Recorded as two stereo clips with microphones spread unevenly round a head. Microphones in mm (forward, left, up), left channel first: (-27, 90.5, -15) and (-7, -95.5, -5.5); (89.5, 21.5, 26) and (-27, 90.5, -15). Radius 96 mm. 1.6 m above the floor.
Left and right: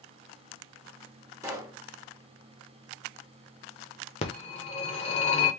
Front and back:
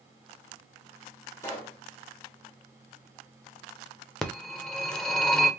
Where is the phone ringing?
40° left, 0.8 m.